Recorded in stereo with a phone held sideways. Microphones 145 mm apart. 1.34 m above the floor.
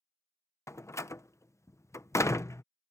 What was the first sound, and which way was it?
A door slam, 20° left (ahead or behind).